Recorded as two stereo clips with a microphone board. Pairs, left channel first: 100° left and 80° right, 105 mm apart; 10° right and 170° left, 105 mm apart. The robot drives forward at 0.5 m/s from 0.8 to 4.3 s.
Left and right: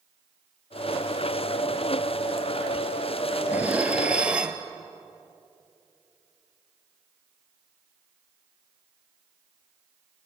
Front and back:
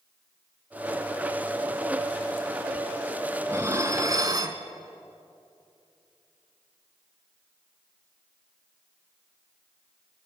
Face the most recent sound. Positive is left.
turn(degrees=-155)